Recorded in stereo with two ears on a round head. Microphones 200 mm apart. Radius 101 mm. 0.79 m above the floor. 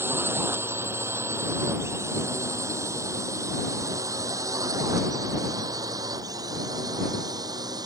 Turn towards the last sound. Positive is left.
turn(degrees=-20)  # may be behind; listen again after turning